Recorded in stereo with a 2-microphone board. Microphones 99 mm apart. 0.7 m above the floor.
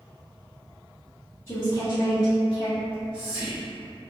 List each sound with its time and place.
1.5 s a woman speaking: 25° left (ahead or behind), 1.1 m; by 2.7 s 40° left (ahead or behind), 1.4 m
2.8 s whispering: 10° left (ahead or behind), 1.0 m